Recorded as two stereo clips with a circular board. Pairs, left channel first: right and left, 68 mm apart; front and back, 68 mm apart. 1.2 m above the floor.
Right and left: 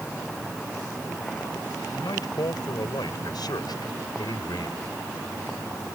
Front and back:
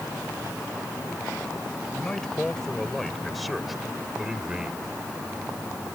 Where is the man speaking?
80° right; by 4.9 s 105° right.